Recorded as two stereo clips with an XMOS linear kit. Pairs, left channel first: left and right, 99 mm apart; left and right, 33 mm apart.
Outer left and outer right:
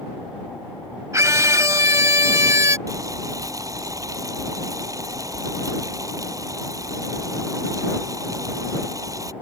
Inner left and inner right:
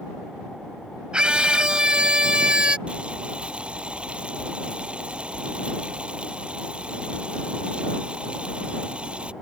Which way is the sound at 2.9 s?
35° right (ahead or behind).